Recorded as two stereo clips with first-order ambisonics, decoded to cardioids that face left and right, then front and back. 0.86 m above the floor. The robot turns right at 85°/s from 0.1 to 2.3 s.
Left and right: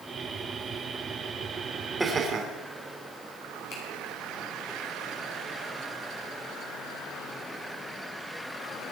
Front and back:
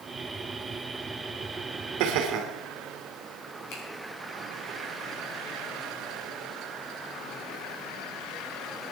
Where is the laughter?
175° right, 3 m; by 2.5 s 145° right, 3 m.